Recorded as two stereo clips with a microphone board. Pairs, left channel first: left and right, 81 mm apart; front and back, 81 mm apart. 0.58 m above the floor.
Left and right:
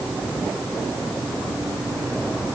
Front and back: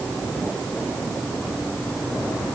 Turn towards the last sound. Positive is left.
No sound to turn to.